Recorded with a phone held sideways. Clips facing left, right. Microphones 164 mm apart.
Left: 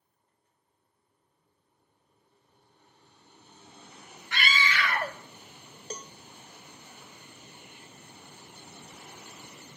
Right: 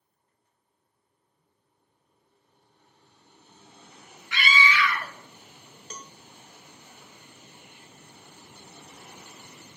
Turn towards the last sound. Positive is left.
turn(degrees=35)  # may be behind; listen again after turning